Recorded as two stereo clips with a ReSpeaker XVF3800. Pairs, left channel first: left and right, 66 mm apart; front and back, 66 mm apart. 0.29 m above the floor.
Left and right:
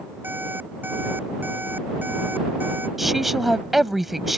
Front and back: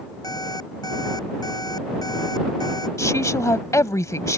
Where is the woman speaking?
5° right.